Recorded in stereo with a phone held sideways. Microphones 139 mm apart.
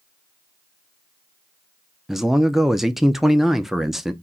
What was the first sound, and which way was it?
A man speaking, 5° right (ahead or behind).